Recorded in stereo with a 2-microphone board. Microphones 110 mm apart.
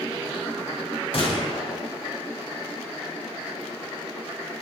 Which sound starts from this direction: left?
A gunshot, at 1.1 s.